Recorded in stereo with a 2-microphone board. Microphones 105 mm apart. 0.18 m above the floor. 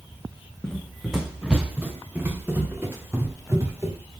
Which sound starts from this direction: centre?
Running footsteps, at 0.6 s.